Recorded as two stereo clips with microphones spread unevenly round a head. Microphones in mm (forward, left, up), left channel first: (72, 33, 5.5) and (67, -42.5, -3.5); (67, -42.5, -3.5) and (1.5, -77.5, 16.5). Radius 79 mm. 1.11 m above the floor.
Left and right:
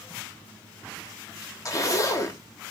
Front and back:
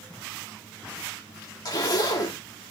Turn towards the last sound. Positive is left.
turn(degrees=40)